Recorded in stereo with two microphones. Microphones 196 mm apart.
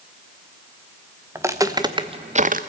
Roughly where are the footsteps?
Centre.